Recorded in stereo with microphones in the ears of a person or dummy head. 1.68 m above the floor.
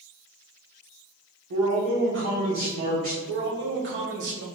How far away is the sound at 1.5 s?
About 1.0 m.